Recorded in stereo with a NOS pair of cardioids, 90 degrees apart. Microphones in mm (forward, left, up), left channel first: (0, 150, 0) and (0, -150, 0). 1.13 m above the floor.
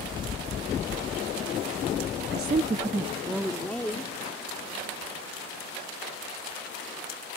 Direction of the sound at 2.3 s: 40° right.